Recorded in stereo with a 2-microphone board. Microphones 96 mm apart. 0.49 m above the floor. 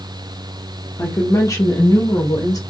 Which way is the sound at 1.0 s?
25° left (ahead or behind).